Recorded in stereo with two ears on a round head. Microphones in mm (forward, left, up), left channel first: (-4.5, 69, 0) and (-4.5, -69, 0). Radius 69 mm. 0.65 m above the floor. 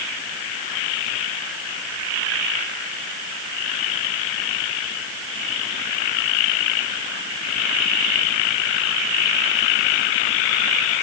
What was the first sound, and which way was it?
Only background noise.